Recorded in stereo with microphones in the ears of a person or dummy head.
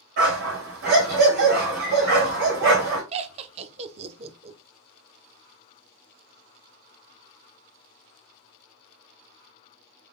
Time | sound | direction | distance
0.2 | a dog barking | 55° right (ahead or behind) | 1.9 m
3.1 | laughter | 35° right (ahead or behind) | 0.5 m